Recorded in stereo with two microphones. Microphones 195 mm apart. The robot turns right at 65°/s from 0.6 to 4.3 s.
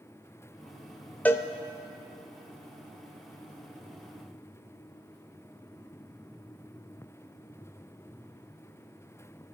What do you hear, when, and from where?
1.2 s a cowbell: 10° left (ahead or behind), 0.5 m; by 1.5 s 20° left (ahead or behind), 0.5 m